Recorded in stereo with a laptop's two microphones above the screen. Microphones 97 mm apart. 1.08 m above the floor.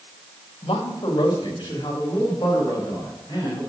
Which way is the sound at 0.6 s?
65° left (ahead or behind).